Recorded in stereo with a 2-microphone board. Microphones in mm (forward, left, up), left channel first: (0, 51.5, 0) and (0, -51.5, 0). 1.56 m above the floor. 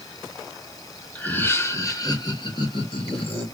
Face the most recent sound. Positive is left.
turn(degrees=60)  # may be behind; listen again after turning